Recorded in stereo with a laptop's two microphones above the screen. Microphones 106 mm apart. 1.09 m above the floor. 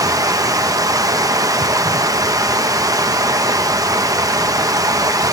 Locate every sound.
0.0 s running water: 35° right (ahead or behind), 1.0 m